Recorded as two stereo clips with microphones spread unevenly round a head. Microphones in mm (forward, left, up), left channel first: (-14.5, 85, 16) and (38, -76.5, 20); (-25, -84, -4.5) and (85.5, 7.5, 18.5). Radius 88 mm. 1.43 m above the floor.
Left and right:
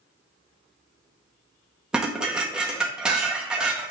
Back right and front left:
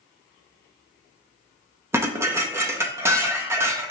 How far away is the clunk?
I don't hear a clunk.